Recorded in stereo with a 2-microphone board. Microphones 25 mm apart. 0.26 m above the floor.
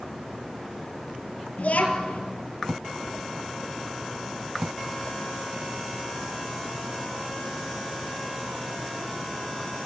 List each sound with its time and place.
1.6 s a child speaking: 80° left, 3 m